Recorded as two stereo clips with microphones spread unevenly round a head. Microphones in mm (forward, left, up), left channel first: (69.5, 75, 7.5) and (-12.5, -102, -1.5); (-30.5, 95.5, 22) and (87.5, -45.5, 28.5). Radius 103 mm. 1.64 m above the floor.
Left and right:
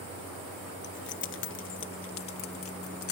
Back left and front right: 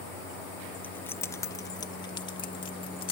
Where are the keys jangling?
50° left; by 3.1 s 70° left.